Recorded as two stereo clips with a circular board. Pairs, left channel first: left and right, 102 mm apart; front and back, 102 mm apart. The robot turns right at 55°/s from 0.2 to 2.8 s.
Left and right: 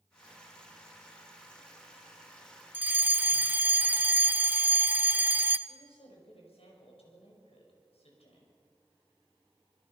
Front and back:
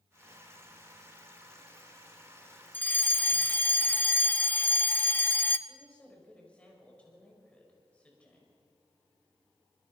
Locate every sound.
2.7 s a fire alarm: 45° right, 0.8 m
5.7 s a woman speaking: 80° left, 6.5 m